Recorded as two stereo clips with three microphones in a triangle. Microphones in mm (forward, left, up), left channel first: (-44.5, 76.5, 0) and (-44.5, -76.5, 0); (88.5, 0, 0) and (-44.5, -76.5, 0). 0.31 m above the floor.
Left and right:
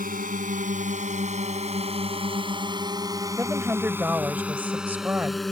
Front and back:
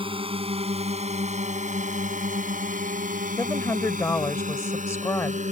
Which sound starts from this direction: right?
A drone, at 0.0 s.